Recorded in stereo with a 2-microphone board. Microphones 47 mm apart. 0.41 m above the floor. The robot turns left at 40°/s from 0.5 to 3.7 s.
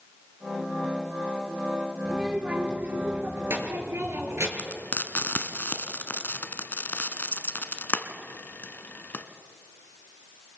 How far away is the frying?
About 1.2 m.